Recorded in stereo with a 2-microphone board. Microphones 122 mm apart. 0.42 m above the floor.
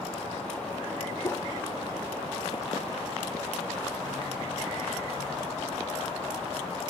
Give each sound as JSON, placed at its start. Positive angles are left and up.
{"t": 1.2, "sound": "a whoosh", "side_deg": 20, "distance_m": 0.6}